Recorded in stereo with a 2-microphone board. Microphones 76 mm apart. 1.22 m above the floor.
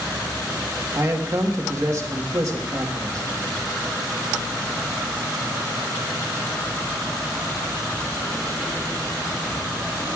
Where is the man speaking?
45° right (ahead or behind), 1.3 m.